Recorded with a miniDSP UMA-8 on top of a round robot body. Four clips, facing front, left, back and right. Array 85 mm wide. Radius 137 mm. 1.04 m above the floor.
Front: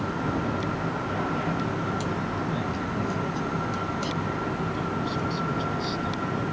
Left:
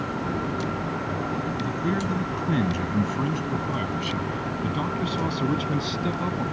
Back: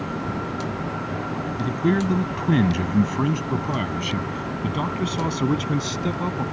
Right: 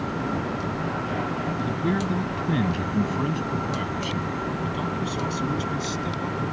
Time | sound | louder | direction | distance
1.6 | a man speaking | right 3 dB, back 6 dB | 170° right | ?